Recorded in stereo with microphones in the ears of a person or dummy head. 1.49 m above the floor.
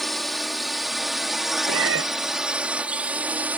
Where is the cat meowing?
85° right.